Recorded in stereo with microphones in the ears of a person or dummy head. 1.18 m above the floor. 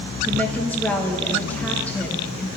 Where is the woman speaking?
10° left (ahead or behind), 1.0 m.